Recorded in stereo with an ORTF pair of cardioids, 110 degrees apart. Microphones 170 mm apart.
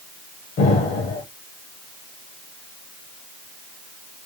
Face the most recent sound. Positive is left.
turn(degrees=60)